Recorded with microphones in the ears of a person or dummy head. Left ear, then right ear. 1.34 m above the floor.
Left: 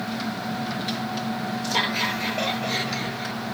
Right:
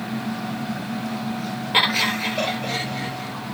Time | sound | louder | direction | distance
1.7 | laughter | right 6 dB | 30° right (ahead or behind) | 1.8 m